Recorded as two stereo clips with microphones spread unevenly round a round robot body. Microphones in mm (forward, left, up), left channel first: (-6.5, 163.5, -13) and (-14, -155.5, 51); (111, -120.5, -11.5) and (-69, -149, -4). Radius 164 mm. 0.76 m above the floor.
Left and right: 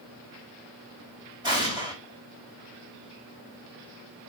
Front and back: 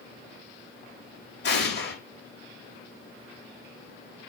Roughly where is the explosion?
Ahead.